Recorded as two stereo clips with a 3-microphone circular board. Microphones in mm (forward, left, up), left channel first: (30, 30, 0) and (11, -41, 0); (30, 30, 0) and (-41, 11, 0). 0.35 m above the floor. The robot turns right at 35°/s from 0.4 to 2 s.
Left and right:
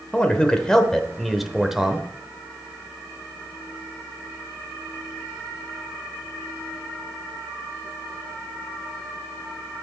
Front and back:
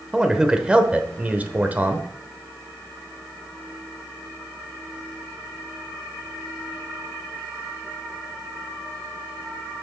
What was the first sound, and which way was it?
A man speaking, 130° left.